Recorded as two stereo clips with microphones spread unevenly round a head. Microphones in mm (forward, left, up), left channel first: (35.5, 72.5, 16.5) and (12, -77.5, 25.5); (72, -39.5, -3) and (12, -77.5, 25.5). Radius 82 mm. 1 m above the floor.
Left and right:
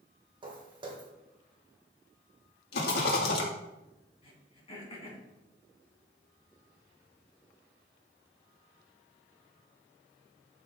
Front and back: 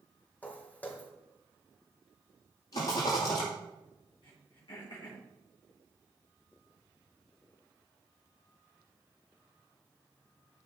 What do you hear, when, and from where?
0.4 s footsteps: 45° right, 2.5 m
2.7 s a rattle: 75° left, 2 m
4.2 s throat clearing: 25° left, 3.5 m